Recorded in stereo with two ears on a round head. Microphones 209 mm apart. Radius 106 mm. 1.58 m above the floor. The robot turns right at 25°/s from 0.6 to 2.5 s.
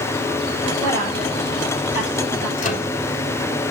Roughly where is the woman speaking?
Centre.